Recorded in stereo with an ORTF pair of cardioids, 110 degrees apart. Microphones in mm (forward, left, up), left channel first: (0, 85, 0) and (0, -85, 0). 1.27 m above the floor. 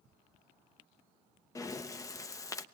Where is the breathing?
20° left, 0.7 m.